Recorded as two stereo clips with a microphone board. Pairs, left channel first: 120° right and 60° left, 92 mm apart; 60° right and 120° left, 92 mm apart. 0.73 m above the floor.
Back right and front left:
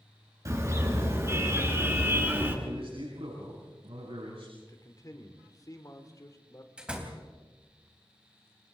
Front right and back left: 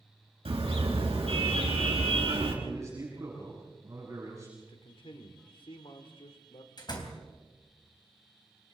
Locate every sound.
0.5 s a car horn: 115° left, 6 m; by 2.5 s 125° left, 5.5 m
2.6 s a man speaking: 65° left, 8 m
4.6 s a man speaking: 70° right, 2.5 m
6.8 s a door slam: 20° right, 3.5 m